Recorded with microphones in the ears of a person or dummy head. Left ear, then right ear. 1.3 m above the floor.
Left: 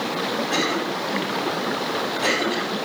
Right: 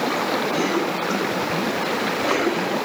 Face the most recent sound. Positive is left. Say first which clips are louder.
# right 1 dB
turn(degrees=45)  # may be behind; listen again after turning